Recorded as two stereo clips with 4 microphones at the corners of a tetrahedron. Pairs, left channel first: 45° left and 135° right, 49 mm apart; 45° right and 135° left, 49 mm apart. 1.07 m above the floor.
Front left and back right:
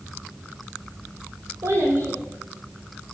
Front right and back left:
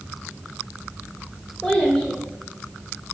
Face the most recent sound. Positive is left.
turn(degrees=-135)